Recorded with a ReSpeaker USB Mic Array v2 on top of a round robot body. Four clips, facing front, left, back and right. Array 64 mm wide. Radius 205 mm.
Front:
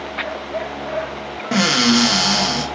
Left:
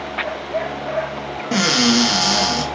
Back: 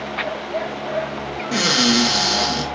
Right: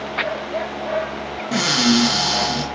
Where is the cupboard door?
25° left, 0.7 m.